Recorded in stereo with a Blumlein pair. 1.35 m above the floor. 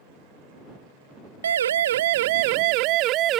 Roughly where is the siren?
Ahead right.